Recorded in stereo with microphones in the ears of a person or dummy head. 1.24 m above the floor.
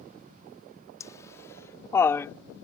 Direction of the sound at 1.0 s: 20° left (ahead or behind).